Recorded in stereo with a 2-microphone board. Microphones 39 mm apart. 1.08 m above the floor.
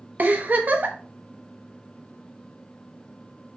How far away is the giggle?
About 0.8 m.